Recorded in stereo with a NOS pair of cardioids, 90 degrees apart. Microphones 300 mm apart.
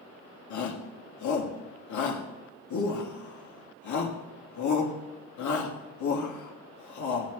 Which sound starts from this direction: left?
A shout, at 0.5 s.